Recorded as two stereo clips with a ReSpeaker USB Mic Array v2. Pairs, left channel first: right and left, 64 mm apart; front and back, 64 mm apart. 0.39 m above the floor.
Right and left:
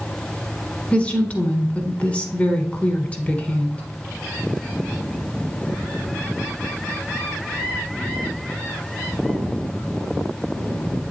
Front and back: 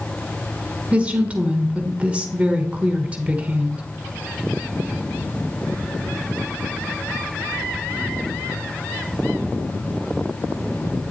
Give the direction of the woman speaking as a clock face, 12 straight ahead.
4 o'clock.